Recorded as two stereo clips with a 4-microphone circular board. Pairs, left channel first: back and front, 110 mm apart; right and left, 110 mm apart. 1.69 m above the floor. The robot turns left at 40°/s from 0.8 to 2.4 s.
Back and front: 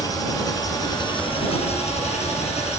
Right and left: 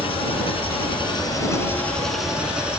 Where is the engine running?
125° right; by 2.8 s 170° left.